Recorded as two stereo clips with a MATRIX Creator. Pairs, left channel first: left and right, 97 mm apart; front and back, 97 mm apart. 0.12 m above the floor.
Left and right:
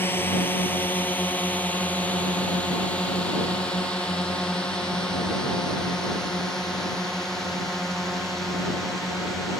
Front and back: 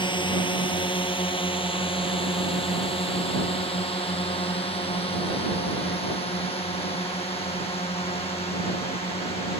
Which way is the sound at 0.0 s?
25° left.